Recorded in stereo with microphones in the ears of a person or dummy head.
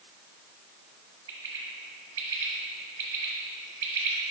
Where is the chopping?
No chopping in this recording.